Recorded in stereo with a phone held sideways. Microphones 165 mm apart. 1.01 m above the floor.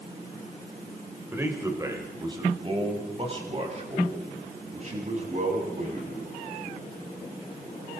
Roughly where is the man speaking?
Centre.